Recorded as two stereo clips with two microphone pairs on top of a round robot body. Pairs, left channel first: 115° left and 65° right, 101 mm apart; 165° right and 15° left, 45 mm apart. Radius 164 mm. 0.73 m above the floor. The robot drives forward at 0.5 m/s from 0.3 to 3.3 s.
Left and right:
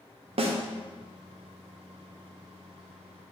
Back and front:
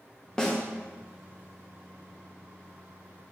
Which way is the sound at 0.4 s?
85° right.